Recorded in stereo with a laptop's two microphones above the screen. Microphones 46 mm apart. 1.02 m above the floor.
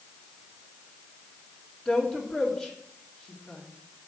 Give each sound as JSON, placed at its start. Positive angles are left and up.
{"t": 1.9, "sound": "a woman speaking", "side_deg": 20, "distance_m": 2.5}